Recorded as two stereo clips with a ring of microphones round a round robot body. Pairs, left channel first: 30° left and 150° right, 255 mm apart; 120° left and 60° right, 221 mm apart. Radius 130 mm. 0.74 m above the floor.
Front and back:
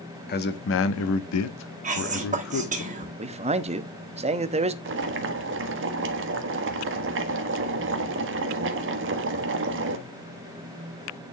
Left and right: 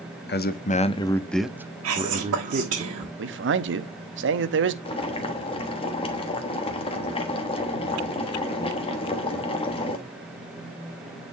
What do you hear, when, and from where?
0.3 s a man speaking: 80° left, 1.1 m; by 2.8 s 10° right, 1.5 m
1.8 s whispering: 90° right, 1.4 m
3.2 s a man speaking: 85° right, 0.8 m
4.8 s boiling: straight behind, 1.2 m